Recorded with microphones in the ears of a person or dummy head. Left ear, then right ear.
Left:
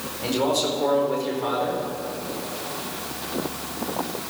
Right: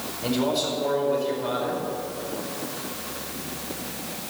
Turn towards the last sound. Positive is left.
turn(degrees=75)  # may be behind; listen again after turning